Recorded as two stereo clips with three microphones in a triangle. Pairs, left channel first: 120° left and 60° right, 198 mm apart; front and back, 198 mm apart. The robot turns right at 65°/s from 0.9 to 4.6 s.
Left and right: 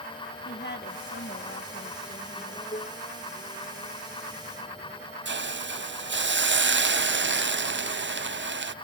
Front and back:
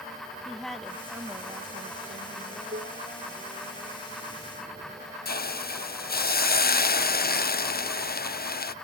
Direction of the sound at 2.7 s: 160° left.